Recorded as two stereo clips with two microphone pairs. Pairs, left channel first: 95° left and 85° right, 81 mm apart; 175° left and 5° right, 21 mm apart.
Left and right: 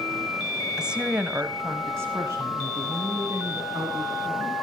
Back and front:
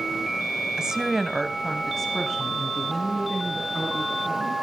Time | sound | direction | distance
0.8 | a woman speaking | 5° right | 1.2 m